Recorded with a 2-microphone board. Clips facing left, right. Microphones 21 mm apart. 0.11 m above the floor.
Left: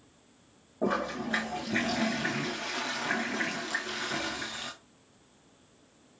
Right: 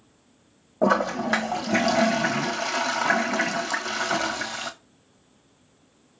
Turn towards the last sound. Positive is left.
turn(degrees=-80)